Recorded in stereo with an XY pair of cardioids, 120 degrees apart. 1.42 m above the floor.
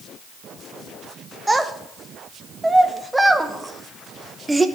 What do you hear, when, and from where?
1.5 s a child speaking: 10° right, 0.9 m